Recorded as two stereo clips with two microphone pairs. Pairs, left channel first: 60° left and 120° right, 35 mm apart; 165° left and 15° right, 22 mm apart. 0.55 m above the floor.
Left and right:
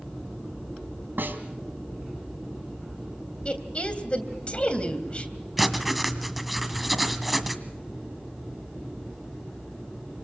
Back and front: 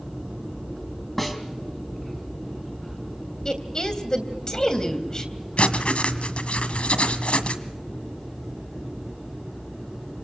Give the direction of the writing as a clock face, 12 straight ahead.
7 o'clock.